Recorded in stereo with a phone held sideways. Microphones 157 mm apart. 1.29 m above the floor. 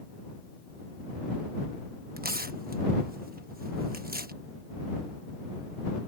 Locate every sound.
2.2 s tearing paper: 70° right (ahead or behind)